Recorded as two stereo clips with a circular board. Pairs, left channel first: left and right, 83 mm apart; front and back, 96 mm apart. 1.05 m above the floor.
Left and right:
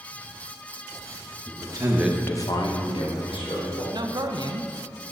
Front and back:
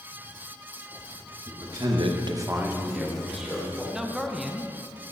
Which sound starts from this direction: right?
A man speaking, at 3.9 s.